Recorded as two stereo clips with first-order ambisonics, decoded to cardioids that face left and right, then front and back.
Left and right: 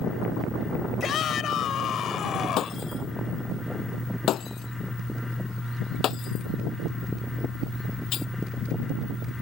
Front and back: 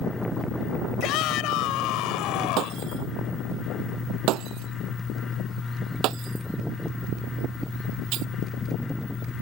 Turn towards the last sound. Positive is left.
turn(degrees=140)